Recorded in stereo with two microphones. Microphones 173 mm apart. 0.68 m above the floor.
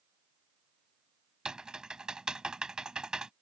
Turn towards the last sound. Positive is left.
turn(degrees=-5)  # may be behind; listen again after turning